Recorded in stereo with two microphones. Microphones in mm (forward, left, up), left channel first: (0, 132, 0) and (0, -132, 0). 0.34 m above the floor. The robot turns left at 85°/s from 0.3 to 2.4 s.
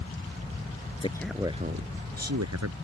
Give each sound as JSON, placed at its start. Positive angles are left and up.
{"t": 1.0, "sound": "a man speaking", "azimuth_deg": 25}